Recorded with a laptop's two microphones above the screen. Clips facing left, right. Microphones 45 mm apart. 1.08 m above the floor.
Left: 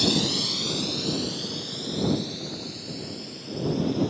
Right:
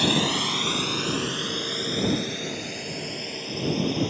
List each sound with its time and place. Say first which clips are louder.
0.0 s a drone: right 2 dB; 35° right (ahead or behind); by 4.1 s 60° right (ahead or behind)